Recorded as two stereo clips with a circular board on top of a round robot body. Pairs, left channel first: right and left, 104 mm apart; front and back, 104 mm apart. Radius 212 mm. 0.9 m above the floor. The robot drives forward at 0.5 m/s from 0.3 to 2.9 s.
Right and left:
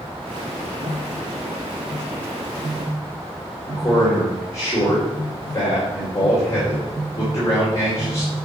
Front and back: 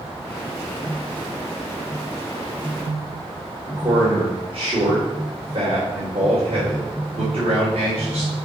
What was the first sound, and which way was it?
A man speaking, 155° right.